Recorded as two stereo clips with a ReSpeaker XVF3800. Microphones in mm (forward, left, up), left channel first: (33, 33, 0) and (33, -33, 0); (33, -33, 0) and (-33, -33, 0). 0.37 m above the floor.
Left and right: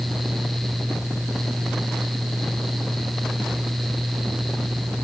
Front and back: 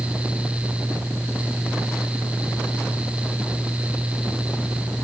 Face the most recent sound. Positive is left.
No sound to turn to.